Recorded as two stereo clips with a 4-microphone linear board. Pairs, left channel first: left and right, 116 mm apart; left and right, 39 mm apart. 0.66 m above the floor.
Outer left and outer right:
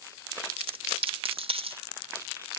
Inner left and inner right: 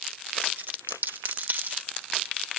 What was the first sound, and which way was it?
A dropped coin, 60° right (ahead or behind).